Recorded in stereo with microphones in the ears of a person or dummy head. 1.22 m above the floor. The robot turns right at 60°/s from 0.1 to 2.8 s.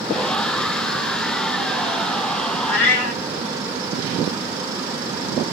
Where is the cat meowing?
60° left (ahead or behind), 2.5 m; by 3.2 s 50° left (ahead or behind), 2.5 m.